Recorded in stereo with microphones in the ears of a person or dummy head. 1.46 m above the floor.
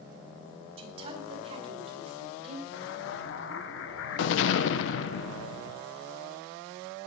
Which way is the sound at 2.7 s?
65° left (ahead or behind).